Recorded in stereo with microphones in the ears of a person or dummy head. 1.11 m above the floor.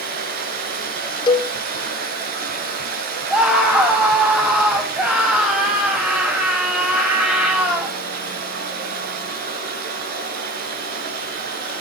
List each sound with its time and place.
0.0 s running water: 50° right (ahead or behind), 5.5 m
1.3 s a cowbell: 20° left (ahead or behind), 1.1 m
3.3 s a scream: 5° right (ahead or behind), 8 m